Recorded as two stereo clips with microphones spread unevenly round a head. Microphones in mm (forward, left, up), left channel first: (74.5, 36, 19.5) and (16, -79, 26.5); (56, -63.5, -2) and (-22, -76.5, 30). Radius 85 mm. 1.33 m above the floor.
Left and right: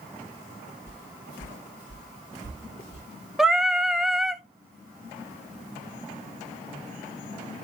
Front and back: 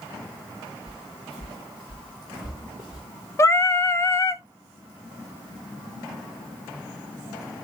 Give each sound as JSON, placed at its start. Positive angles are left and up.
{"t": 0.9, "sound": "footsteps", "azimuth_deg": 30, "distance_m": 6.5}
{"t": 3.4, "sound": "singing", "azimuth_deg": -30, "distance_m": 0.8}